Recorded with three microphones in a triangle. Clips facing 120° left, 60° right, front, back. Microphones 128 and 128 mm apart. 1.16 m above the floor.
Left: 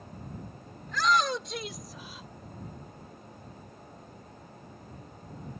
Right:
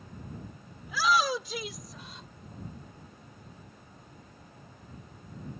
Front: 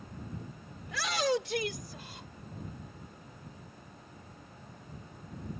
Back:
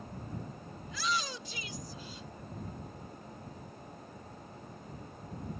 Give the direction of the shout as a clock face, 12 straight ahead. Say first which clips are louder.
Even, front 6 dB; 11 o'clock.